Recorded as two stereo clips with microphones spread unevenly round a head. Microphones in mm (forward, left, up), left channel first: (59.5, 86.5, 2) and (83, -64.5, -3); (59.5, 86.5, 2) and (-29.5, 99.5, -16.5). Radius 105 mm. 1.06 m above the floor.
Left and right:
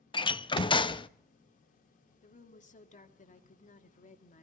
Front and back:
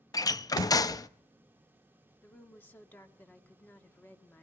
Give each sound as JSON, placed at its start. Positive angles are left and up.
{"t": 0.1, "sound": "a door slam", "azimuth_deg": 40, "distance_m": 0.7}
{"t": 2.2, "sound": "a woman speaking", "azimuth_deg": 65, "distance_m": 2.0}